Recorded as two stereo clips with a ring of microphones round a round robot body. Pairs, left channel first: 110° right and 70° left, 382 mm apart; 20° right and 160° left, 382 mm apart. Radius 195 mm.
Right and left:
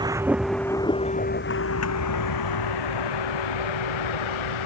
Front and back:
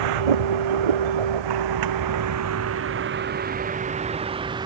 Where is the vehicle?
150° left; by 4.7 s 120° right.